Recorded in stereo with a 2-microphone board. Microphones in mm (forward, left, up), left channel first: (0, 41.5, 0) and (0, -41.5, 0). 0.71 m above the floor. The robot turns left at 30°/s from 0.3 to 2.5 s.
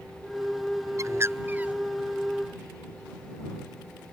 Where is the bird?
40° right (ahead or behind); by 1.8 s 15° right (ahead or behind).